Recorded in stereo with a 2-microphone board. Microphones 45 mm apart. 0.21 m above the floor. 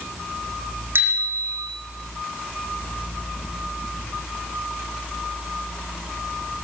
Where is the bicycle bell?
60° right (ahead or behind), 7 m.